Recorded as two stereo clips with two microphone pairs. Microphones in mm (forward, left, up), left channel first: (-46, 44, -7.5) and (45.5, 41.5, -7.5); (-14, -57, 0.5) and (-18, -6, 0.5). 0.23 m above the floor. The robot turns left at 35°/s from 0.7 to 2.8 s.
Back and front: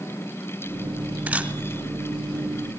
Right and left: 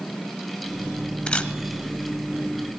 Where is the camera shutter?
55° right, 1.4 m; by 1.5 s 60° right, 1.4 m.